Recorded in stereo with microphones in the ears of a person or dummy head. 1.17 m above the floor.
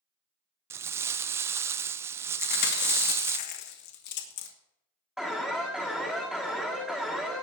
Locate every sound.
0.7 s crumpling: 15° right (ahead or behind), 0.5 m
2.4 s chewing: 55° left (ahead or behind), 1.5 m
5.2 s an alarm: centre (ahead or behind), 1.7 m